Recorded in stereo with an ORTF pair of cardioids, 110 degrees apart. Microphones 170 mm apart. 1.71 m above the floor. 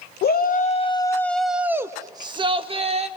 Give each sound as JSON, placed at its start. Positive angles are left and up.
{"t": 0.2, "sound": "a shout", "azimuth_deg": 60, "distance_m": 0.7}